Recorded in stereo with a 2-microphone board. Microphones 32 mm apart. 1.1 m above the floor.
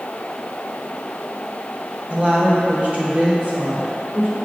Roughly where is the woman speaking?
Right.